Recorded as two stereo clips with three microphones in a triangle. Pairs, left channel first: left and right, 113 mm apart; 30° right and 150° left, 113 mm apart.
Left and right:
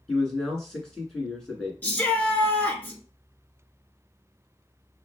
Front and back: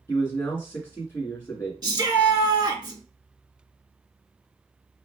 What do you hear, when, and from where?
0.1 s a man speaking: 10° left, 1.6 m
1.8 s a shout: 155° left, 1.3 m